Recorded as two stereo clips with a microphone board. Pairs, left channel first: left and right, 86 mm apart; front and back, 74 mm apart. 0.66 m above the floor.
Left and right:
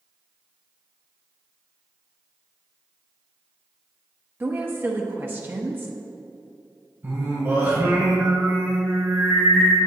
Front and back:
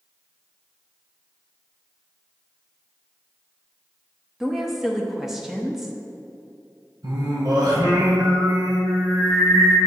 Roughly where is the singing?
Behind right.